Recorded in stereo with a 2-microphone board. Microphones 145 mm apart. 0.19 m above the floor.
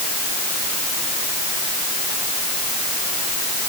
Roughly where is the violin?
No violin in this recording.